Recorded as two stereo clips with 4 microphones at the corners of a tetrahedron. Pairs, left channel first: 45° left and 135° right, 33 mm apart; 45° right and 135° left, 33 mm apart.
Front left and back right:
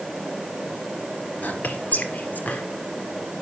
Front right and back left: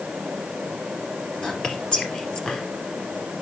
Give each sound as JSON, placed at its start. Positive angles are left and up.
{"t": 1.4, "sound": "whispering", "azimuth_deg": 20, "distance_m": 2.5}